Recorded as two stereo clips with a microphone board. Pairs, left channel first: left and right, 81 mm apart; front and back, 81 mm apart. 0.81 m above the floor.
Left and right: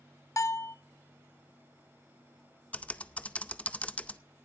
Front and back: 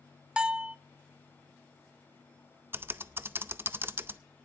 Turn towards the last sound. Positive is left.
turn(degrees=150)